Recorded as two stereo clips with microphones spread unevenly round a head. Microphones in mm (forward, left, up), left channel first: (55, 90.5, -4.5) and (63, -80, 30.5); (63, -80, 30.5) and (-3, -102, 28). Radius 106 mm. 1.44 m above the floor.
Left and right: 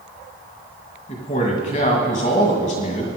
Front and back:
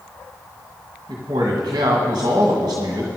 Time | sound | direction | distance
1.1 | a man speaking | 150° left | 1.9 m